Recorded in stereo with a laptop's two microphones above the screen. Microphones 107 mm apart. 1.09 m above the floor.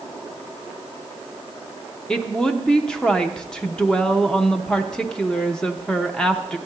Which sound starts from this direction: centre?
A woman speaking, at 2.1 s.